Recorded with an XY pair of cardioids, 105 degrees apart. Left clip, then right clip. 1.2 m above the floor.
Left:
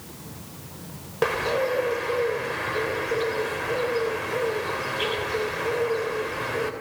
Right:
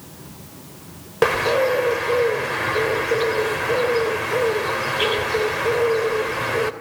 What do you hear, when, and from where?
1.2 s a bird: 40° right, 2.5 m